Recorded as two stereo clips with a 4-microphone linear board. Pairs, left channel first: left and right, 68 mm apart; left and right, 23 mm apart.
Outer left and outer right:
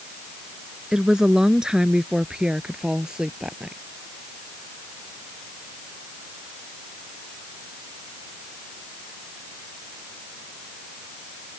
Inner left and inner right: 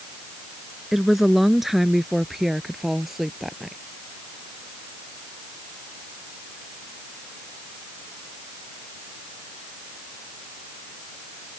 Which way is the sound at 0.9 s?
10° right (ahead or behind).